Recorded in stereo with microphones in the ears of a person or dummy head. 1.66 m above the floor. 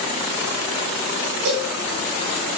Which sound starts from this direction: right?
A cowbell, at 1.4 s.